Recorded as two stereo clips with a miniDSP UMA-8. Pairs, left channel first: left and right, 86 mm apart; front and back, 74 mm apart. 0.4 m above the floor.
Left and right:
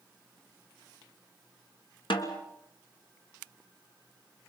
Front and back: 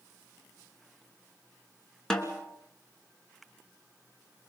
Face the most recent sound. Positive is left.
turn(degrees=85)